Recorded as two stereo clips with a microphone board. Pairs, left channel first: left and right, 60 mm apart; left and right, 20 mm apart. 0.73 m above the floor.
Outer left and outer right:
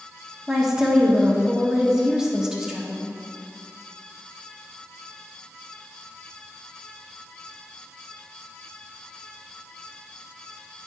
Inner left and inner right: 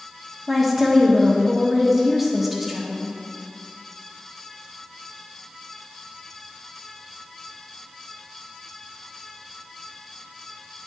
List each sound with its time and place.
0.5 s a woman speaking: 10° right (ahead or behind), 1.2 m